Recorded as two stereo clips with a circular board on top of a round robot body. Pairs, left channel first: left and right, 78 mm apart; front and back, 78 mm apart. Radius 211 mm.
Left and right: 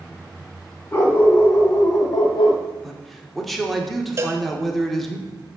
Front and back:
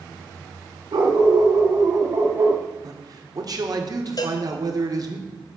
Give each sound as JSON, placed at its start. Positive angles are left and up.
{"t": 0.9, "sound": "a dog barking", "azimuth_deg": 160, "distance_m": 2.0}
{"t": 2.8, "sound": "a man speaking", "azimuth_deg": 180, "distance_m": 2.0}
{"t": 4.2, "sound": "a cowbell", "azimuth_deg": -30, "distance_m": 1.2}